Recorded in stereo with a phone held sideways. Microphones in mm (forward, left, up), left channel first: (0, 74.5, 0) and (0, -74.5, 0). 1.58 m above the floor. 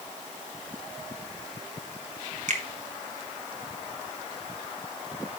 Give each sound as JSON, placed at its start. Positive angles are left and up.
{"t": 2.5, "sound": "a finger snap", "side_deg": -55, "distance_m": 1.3}